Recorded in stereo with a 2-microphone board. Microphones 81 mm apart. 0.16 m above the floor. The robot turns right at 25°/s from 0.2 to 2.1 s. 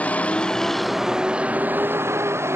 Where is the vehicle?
165° left; by 2.6 s 150° right.